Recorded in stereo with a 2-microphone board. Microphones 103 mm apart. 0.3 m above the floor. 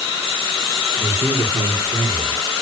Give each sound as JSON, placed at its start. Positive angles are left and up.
{"t": 1.0, "sound": "a man speaking", "side_deg": -65, "distance_m": 3.0}